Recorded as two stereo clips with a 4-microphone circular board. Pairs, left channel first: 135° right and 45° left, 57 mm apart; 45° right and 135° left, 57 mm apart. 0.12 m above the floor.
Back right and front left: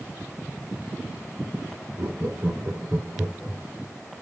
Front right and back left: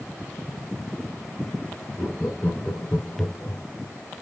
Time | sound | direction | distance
2.0 | laughter | 55° left | 2.5 m